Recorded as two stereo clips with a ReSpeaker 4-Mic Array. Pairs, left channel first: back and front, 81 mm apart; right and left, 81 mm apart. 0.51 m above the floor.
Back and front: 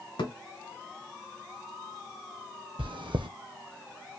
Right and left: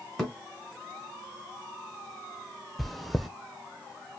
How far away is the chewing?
About 0.6 m.